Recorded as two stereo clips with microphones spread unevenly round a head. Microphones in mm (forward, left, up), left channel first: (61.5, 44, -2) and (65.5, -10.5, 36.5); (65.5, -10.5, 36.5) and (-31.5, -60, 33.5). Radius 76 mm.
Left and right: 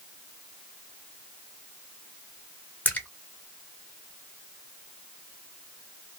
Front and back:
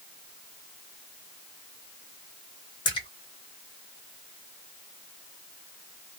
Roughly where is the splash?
Ahead.